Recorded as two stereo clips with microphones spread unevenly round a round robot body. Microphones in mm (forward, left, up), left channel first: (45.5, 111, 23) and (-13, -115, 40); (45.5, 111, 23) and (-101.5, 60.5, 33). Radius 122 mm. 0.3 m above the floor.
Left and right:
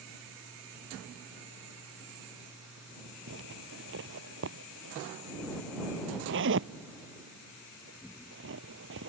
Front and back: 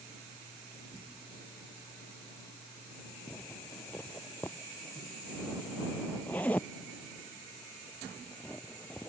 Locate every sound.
3.3 s a zipper: 65° right